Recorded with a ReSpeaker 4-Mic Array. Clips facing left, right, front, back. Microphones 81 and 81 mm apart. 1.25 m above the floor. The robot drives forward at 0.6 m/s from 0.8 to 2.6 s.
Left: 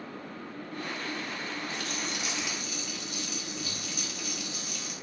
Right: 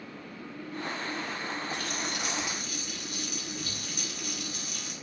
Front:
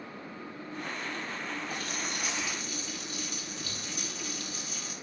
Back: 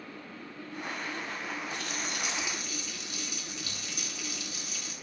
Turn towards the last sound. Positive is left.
turn(degrees=-50)